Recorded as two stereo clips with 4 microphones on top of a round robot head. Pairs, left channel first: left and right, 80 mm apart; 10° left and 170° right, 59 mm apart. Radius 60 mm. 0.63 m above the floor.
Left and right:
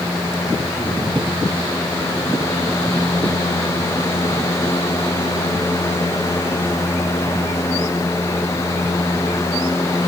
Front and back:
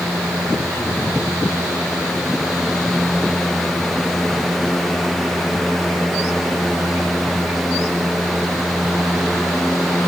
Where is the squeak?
No squeak in this recording.